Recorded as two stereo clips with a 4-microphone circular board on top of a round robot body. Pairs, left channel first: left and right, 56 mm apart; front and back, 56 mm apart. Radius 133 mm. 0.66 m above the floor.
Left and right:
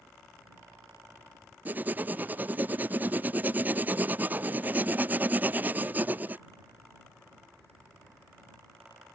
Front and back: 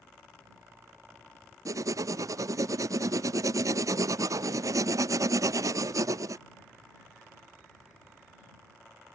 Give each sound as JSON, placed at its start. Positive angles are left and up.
{"t": 1.6, "sound": "writing", "azimuth_deg": -150}